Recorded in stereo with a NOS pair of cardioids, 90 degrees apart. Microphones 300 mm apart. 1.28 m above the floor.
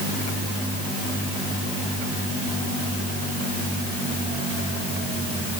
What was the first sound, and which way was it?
Only background noise.